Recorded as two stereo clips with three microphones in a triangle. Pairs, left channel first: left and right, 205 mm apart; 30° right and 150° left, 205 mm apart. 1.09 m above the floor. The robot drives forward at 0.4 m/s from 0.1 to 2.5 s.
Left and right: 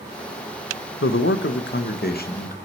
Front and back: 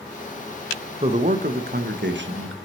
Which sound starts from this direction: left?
A man speaking, at 1.0 s.